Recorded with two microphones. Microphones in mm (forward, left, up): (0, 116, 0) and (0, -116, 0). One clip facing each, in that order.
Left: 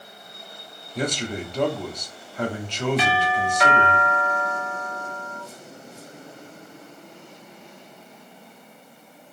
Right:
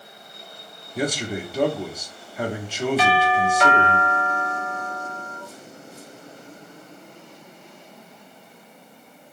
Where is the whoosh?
No whoosh in this recording.